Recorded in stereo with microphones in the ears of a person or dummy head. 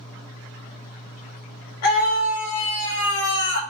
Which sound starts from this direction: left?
A scream, at 1.8 s.